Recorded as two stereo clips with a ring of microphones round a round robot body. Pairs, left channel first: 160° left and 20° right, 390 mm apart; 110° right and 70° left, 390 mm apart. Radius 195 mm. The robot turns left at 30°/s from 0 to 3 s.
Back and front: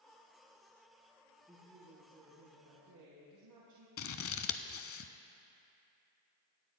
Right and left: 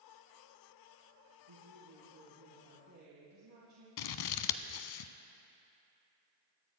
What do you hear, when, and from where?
1.5 s a woman speaking: 65° left, 2.5 m; by 3.9 s 15° left, 2.5 m
4.0 s scissors: 145° right, 0.7 m